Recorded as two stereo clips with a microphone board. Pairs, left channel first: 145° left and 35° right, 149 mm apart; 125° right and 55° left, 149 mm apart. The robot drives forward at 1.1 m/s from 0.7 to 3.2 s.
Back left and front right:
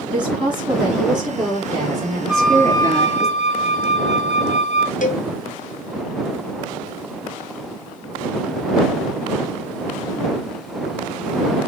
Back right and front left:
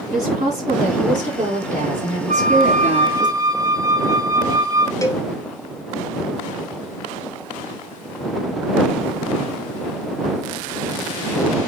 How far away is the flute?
About 1.0 m.